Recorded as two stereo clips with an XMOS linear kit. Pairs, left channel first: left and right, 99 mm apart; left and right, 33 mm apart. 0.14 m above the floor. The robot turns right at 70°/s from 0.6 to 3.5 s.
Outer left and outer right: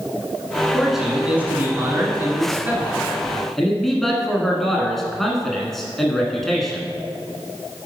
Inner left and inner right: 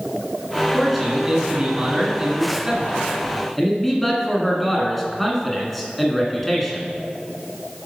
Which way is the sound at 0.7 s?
5° left (ahead or behind).